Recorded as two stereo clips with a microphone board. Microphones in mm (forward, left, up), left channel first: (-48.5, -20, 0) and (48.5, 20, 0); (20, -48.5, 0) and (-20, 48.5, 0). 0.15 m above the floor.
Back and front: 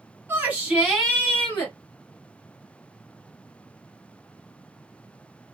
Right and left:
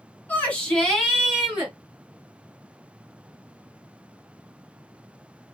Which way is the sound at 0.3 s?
15° right.